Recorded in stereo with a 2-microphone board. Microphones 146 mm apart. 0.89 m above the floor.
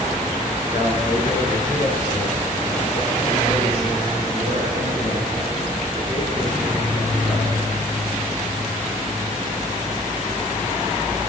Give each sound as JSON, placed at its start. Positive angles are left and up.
{"t": 0.7, "sound": "a man speaking", "side_deg": 75, "distance_m": 3.5}